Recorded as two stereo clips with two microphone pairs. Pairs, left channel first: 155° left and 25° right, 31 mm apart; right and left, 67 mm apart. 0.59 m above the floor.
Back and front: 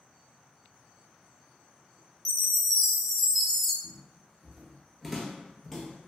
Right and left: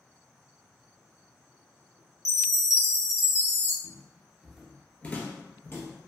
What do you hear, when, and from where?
2.2 s a chime: 120° right, 0.7 m
3.8 s footsteps: 35° left, 0.7 m; by 6.1 s 130° right, 1.0 m